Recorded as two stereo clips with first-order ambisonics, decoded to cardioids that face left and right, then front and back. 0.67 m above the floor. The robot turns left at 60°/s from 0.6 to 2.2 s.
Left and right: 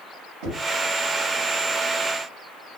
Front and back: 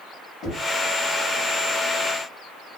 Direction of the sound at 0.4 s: 70° right.